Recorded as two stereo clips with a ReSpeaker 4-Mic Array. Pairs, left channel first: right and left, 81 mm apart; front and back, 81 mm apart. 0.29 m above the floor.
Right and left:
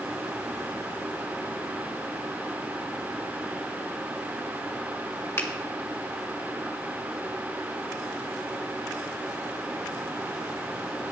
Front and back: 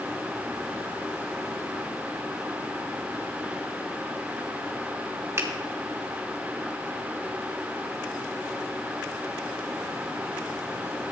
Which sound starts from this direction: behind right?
A finger snap, at 5.4 s.